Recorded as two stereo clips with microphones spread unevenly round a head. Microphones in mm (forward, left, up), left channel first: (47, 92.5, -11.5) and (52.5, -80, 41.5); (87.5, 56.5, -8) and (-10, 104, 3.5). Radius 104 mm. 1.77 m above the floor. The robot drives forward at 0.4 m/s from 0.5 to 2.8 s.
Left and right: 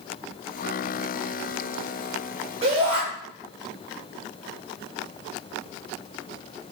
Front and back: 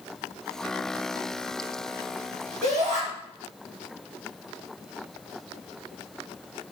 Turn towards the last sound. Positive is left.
turn(degrees=-150)